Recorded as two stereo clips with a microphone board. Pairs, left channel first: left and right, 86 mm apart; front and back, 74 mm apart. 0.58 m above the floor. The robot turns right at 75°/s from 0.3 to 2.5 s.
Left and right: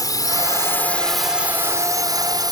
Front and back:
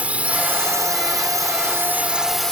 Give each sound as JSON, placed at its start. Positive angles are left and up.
{"t": 0.0, "sound": "a drone", "azimuth_deg": 115}